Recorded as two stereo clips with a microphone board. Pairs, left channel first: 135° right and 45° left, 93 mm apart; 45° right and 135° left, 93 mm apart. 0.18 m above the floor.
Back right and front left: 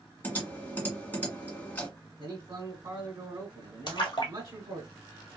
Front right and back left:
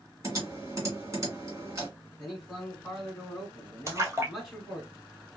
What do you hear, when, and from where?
0.2 s typing on a keyboard: 165° left, 1.9 m
2.2 s a man speaking: 40° left, 1.3 m
3.9 s a splash: 170° right, 1.2 m